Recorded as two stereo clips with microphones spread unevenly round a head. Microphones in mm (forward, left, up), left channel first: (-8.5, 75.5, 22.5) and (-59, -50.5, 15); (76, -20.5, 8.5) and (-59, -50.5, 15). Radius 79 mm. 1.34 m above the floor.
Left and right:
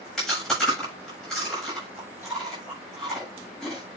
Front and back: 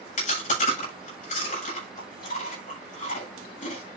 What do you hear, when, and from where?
0.2 s chewing: 20° right, 8 m